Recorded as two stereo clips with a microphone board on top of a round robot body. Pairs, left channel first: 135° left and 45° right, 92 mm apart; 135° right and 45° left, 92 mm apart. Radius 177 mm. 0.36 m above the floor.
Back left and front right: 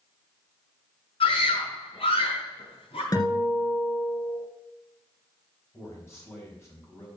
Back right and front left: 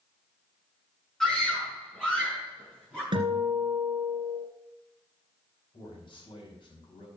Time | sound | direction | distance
1.2 | a scream | 135° left | 6 m
3.1 | a guitar | 85° left | 2 m
5.7 | a man speaking | 165° right | 5 m